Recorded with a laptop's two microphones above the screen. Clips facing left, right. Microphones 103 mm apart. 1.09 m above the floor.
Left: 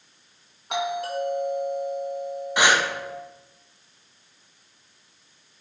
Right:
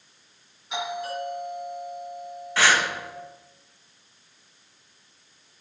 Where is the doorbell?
65° left (ahead or behind), 2 m.